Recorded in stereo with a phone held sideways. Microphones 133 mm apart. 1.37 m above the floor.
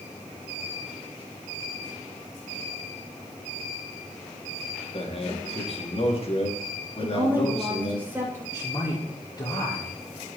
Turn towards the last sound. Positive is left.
turn(degrees=30)  # may be behind; listen again after turning